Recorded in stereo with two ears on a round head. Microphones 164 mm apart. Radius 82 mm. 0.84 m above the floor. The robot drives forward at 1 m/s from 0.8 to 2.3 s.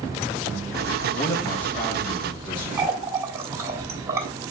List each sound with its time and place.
1.1 s a man speaking: 40° left (ahead or behind), 1.2 m; by 2.7 s 25° left (ahead or behind), 1.9 m
2.8 s a running tap: 15° right (ahead or behind), 1.4 m